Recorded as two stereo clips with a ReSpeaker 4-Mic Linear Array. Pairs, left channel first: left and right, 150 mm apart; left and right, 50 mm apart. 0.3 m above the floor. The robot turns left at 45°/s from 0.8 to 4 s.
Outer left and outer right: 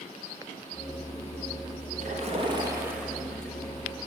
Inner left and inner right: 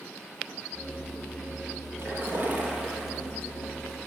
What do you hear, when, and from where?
2.0 s a splash: 125° right, 5.5 m; by 3.6 s 160° left, 5.5 m